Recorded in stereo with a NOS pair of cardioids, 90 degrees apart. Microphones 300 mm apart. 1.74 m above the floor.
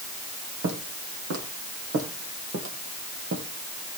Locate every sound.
0.6 s footsteps: 60° right, 5.5 m; by 3.4 s 40° right, 3.5 m